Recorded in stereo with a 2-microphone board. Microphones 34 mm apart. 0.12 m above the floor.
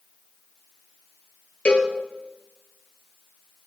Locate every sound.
1.6 s a cowbell: 40° left (ahead or behind), 1.4 m